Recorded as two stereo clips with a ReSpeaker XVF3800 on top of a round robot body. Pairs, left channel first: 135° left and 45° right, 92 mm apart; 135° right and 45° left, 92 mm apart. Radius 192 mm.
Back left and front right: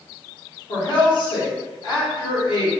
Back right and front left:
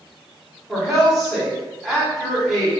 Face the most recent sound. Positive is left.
turn(degrees=135)